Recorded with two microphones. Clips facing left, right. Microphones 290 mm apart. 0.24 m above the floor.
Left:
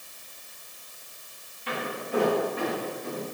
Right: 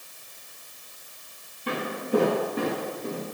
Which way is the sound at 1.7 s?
50° right (ahead or behind).